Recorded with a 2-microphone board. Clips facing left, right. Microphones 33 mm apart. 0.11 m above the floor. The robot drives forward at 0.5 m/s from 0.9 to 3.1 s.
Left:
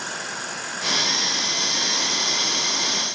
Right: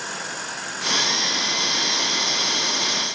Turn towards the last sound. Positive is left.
No sound to turn to.